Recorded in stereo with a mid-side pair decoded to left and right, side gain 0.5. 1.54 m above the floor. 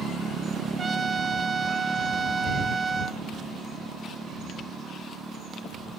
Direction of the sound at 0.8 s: 35° right.